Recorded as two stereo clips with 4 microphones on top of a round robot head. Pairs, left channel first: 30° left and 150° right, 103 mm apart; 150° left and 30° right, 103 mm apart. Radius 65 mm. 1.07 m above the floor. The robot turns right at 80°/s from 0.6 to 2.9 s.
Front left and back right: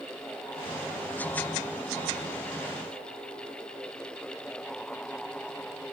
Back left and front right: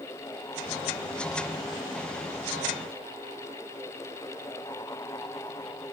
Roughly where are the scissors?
I don't hear scissors.